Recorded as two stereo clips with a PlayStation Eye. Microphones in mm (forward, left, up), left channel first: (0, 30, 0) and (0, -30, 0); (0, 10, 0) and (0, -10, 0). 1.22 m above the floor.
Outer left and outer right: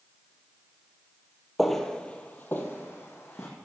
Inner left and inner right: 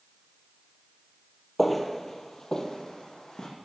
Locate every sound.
1.6 s footsteps: centre (ahead or behind), 1.3 m; by 3.5 s 45° left (ahead or behind), 2.5 m